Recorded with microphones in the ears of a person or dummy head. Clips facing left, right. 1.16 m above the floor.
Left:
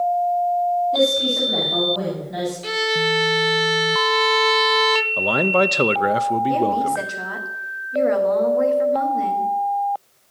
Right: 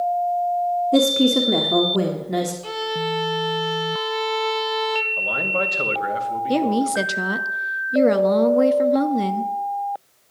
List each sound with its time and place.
0.9 s a woman speaking: 65° right (ahead or behind), 1.8 m
2.6 s a violin: 20° left (ahead or behind), 0.6 m
5.2 s a man speaking: 60° left (ahead or behind), 0.9 m
6.5 s a woman speaking: 50° right (ahead or behind), 1.2 m